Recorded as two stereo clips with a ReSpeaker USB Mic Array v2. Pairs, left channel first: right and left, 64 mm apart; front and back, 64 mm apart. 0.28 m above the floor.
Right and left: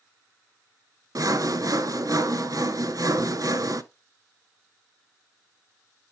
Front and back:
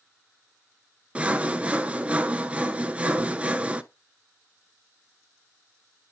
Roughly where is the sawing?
Behind left.